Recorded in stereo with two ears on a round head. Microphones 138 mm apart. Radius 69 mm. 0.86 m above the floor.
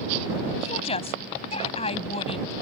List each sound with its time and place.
0.6 s a woman speaking: 40° left (ahead or behind)